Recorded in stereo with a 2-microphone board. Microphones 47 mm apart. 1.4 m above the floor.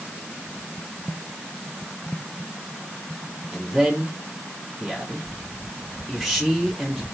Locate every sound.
3.5 s a man speaking: centre (ahead or behind), 4 m